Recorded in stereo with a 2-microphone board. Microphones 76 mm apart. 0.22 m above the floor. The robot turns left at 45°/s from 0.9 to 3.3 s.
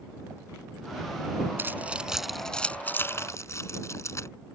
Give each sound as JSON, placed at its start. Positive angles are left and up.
{"t": 1.6, "sound": "keys jangling", "side_deg": -30}